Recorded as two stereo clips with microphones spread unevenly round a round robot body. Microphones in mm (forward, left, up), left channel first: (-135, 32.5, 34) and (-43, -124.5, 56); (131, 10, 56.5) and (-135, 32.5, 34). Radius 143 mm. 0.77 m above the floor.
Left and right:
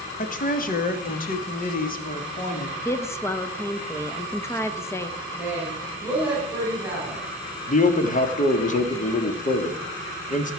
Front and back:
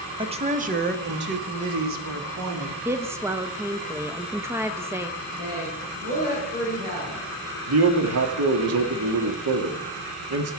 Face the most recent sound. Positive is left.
turn(degrees=160)